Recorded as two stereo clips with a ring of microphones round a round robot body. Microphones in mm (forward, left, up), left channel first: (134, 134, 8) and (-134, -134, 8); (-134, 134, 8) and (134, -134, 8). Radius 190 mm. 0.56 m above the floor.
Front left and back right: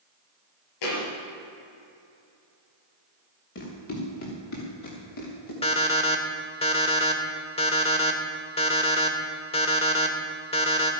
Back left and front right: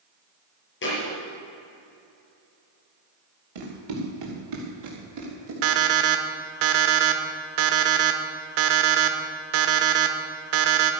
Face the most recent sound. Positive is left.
turn(degrees=-30)